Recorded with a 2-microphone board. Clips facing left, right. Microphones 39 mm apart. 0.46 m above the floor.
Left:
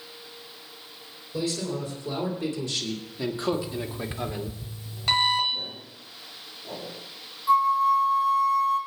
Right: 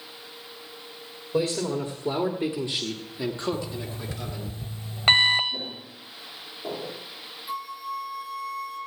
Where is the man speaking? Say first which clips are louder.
Right 4 dB; 55° right (ahead or behind), 2 m; by 4.5 s 40° left (ahead or behind), 1.7 m.